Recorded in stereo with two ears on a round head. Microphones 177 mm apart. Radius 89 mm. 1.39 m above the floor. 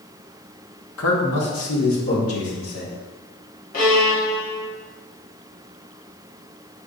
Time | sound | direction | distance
1.0 | a man speaking | 65° left (ahead or behind) | 0.9 m
3.7 | a violin | 45° left (ahead or behind) | 1.6 m